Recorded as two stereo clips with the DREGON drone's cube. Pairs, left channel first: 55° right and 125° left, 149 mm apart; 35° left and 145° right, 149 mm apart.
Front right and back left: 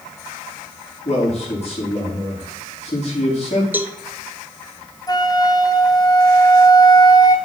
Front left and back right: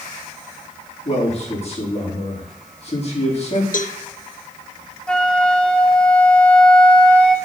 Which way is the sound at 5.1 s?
45° right.